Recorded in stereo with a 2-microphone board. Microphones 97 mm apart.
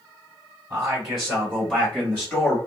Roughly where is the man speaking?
Centre.